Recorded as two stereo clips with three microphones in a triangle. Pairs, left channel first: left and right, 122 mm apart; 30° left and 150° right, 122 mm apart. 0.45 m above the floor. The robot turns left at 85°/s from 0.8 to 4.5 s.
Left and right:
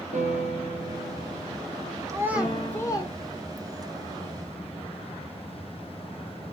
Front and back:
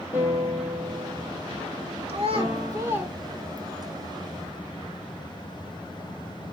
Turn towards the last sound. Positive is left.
turn(degrees=10)